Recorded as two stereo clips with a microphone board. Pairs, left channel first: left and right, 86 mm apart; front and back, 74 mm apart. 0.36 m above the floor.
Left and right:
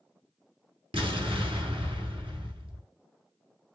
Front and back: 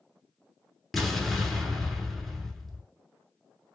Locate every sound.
0.9 s an explosion: 85° right, 0.8 m